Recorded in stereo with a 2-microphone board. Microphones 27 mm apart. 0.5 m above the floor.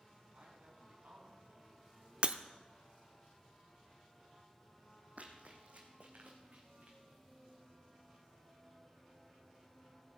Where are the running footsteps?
60° right (ahead or behind), 1.8 m.